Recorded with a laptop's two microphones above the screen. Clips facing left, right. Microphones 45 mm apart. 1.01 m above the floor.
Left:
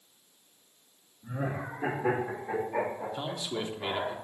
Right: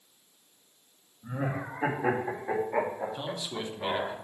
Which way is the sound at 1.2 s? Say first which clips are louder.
Right 1 dB; 30° right (ahead or behind).